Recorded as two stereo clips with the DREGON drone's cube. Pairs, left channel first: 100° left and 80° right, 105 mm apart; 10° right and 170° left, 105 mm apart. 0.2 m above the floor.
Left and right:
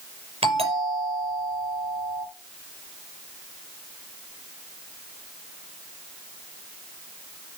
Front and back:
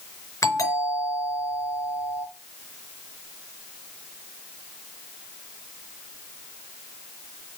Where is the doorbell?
70° right, 5 m.